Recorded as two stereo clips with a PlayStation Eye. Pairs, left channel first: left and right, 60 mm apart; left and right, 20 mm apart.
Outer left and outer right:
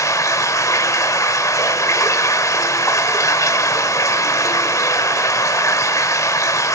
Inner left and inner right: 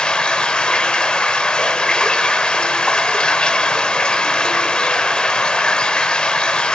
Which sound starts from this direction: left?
Running water, at 0.0 s.